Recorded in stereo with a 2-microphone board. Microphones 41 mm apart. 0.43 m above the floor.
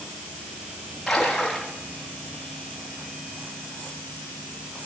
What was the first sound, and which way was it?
A splash, centre (ahead or behind).